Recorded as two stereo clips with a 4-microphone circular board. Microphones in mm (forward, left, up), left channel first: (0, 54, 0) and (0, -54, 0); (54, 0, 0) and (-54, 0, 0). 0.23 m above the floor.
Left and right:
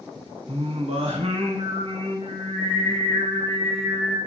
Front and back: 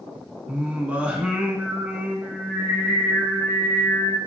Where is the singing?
100° right, 0.6 m.